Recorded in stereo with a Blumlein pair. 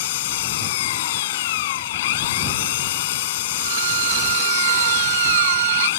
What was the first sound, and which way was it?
An engine running, 55° left.